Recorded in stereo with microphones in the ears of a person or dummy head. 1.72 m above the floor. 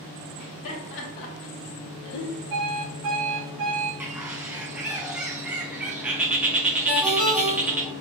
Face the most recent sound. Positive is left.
turn(degrees=0)  # may be behind; listen again after turning